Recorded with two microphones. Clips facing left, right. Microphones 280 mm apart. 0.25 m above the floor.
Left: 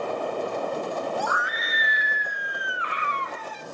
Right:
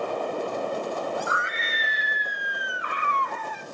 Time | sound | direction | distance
1.2 | a scream | 20° right (ahead or behind) | 2 m